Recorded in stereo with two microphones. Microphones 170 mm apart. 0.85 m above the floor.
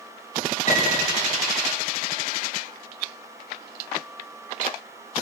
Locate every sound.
0.7 s a piano: 50° left (ahead or behind), 6 m